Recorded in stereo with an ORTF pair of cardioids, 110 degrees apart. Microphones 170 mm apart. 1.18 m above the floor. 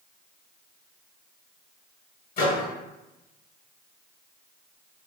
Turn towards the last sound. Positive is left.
turn(degrees=60)